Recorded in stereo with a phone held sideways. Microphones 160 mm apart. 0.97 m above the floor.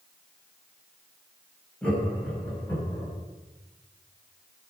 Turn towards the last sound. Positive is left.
turn(degrees=15)  # may be behind; listen again after turning